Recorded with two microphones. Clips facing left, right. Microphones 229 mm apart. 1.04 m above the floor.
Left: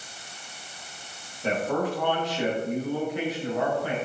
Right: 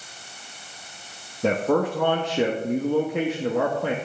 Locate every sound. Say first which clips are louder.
1.4 s a man speaking: right 5 dB; 80° right, 1.3 m